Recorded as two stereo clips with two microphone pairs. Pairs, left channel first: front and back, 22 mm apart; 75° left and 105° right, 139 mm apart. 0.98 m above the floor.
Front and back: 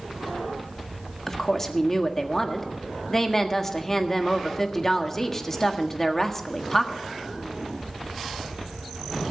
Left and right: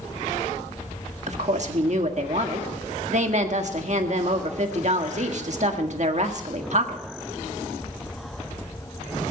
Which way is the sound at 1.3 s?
75° right.